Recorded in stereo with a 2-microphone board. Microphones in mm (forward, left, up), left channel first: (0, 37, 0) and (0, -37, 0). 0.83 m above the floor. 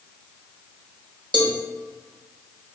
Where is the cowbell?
75° right (ahead or behind), 0.7 m.